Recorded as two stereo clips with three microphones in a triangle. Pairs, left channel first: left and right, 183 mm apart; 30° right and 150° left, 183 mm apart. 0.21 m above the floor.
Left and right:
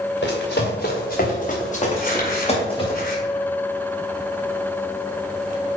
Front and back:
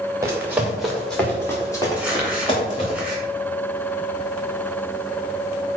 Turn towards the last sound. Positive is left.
turn(degrees=65)